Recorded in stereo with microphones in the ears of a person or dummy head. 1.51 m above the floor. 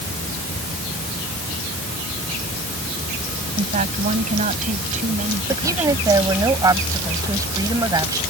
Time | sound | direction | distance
3.6 | a woman speaking | 35° right (ahead or behind) | ?
5.5 | a woman speaking | 15° right (ahead or behind) | ?